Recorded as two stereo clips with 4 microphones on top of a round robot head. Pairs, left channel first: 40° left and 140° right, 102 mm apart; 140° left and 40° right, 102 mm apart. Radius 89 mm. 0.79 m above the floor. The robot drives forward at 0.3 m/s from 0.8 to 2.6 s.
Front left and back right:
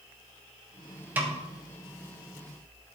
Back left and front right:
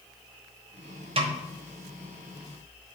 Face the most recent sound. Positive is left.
turn(degrees=-90)